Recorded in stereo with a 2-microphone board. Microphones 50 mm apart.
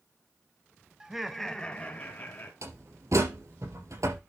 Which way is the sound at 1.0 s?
15° right (ahead or behind).